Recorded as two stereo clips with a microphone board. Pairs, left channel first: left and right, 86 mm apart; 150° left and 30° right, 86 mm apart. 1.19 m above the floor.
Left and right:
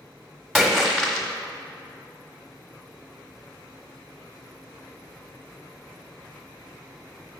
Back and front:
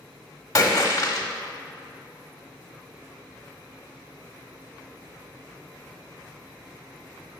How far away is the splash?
About 1.1 m.